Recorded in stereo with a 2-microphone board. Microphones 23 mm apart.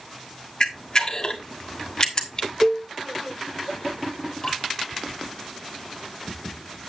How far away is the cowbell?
About 0.7 m.